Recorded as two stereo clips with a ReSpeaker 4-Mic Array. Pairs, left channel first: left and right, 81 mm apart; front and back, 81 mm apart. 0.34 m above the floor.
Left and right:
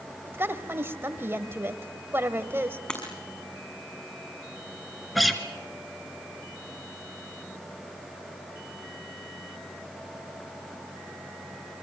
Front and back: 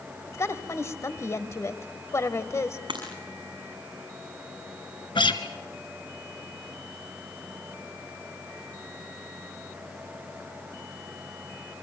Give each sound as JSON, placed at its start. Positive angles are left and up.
{"t": 0.3, "sound": "a woman speaking", "azimuth_deg": -40, "distance_m": 1.3}
{"t": 2.9, "sound": "breaking glass", "azimuth_deg": 165, "distance_m": 6.0}
{"t": 5.2, "sound": "a guitar", "azimuth_deg": 0, "distance_m": 1.7}